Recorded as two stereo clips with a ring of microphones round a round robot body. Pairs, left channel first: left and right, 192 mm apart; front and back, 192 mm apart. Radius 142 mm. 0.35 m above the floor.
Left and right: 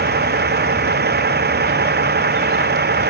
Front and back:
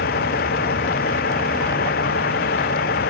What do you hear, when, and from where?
0.0 s a vehicle: 55° right